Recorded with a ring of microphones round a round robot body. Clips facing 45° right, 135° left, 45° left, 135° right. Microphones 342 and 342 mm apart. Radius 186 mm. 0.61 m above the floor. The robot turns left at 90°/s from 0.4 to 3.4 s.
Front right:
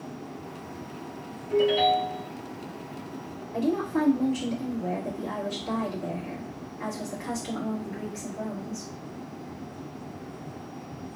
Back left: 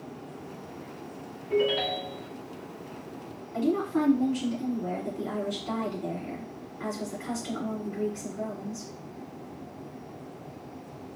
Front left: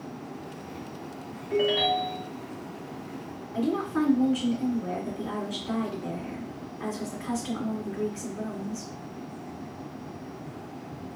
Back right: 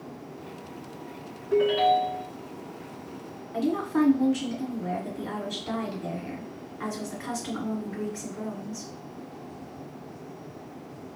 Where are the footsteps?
No footsteps in this recording.